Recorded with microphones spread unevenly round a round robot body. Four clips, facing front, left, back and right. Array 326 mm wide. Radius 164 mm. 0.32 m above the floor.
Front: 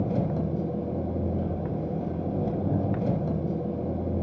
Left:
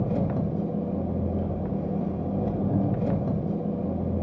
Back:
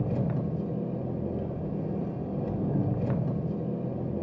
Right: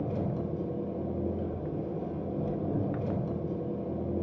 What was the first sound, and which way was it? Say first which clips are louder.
An engine running: left 5 dB, front 3 dB; 55° left.